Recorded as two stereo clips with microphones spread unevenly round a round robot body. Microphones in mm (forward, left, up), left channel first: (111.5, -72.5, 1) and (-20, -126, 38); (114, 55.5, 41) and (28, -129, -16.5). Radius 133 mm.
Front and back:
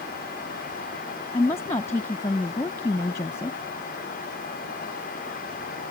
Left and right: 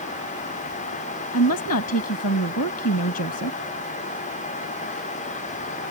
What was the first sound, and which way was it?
A woman speaking, 90° left.